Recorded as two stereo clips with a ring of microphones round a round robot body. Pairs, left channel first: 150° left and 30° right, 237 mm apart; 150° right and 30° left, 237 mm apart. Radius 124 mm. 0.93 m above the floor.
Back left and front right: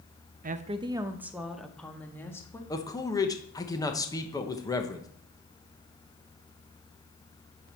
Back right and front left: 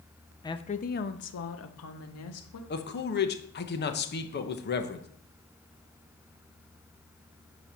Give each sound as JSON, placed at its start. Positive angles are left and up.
{"t": 0.4, "sound": "a woman speaking", "azimuth_deg": -80, "distance_m": 0.7}
{"t": 2.7, "sound": "a man speaking", "azimuth_deg": -140, "distance_m": 1.1}